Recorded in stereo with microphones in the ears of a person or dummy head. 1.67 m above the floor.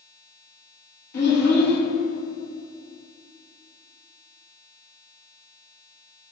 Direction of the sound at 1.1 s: 60° left (ahead or behind).